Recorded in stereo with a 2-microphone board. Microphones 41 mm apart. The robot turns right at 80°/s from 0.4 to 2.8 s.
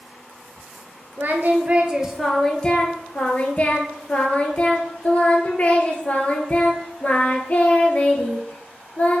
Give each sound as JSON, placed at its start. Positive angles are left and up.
{"t": 1.2, "sound": "singing", "azimuth_deg": -85, "distance_m": 0.7}